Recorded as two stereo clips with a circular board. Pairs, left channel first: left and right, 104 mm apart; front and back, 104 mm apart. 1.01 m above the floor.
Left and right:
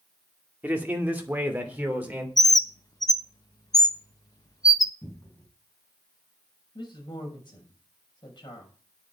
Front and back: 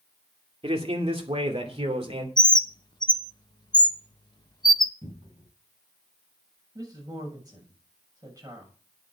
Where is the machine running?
I don't hear a machine running.